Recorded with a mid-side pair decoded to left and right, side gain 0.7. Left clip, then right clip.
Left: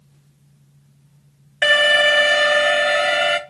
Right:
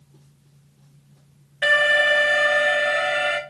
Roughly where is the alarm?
Ahead left.